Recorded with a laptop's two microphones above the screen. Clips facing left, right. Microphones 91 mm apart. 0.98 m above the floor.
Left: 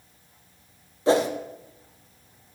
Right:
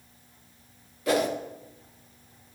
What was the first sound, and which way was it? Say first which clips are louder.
A whoosh: left 4 dB; 30° left (ahead or behind).